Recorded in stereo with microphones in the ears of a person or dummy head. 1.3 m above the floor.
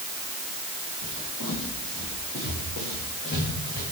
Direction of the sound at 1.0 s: 60° left (ahead or behind).